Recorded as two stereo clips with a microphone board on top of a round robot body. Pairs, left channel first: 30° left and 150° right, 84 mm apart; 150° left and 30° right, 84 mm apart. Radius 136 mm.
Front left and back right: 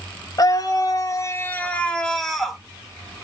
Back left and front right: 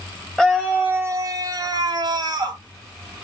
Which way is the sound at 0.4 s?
55° left.